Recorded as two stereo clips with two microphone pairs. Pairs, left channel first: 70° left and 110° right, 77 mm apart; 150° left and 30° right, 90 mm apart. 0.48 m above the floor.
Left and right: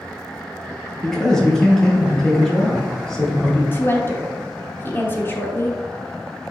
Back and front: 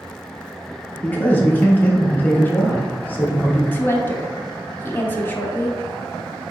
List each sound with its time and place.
1.0 s a man speaking: 135° left, 0.9 m
3.7 s a woman speaking: 100° left, 0.8 m